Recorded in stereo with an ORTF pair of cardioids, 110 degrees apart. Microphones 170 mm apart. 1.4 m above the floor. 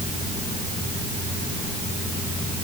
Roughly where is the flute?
No flute in this recording.